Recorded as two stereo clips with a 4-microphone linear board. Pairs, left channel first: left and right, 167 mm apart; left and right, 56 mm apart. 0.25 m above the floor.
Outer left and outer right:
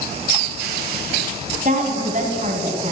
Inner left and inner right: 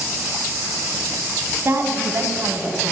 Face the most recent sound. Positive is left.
turn(degrees=-45)  # may be behind; listen again after turning